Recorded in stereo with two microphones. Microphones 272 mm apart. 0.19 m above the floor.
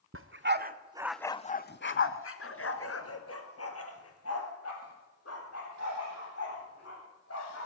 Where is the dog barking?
50° right (ahead or behind), 0.9 m; by 7.7 s 60° left (ahead or behind), 5 m.